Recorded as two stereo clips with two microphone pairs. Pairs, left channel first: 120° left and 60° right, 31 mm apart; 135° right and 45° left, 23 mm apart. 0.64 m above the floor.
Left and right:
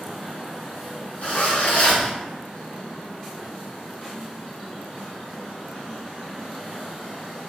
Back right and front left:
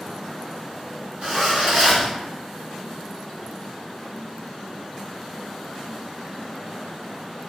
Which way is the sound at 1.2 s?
85° left.